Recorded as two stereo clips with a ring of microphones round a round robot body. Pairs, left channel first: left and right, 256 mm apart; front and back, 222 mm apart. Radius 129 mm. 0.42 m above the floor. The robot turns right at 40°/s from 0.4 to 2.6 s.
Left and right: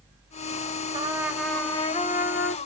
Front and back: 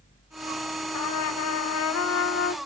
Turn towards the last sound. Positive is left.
turn(degrees=50)